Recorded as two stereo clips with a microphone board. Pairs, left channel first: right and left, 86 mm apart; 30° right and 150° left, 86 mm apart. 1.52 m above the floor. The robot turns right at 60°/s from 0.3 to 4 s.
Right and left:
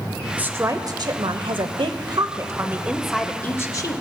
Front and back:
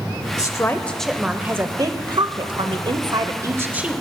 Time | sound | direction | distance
0.4 | a woman speaking | 20° left | 0.8 m